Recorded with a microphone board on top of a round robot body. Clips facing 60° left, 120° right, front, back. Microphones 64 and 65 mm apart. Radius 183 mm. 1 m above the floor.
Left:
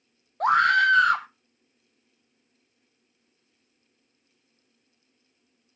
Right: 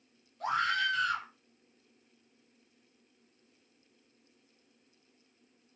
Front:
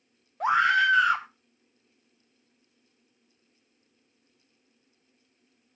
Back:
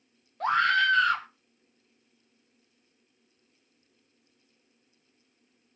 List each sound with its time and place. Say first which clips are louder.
0.4 s a scream: left 11 dB, front 2 dB; 75° left, 0.5 m